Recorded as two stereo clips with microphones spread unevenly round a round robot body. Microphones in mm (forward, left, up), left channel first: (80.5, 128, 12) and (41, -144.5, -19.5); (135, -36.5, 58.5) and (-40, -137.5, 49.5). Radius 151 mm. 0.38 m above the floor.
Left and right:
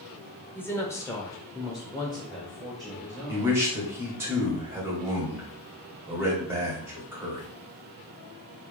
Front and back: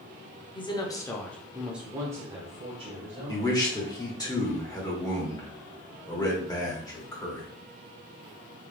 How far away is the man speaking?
About 1.5 m.